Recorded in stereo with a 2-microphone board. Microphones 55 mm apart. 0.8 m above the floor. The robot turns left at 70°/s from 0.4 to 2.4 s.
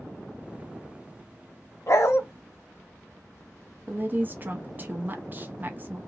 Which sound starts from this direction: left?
A dog barking, at 1.9 s.